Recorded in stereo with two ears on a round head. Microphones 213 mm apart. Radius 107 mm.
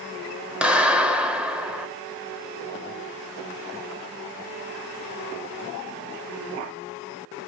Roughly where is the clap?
Centre.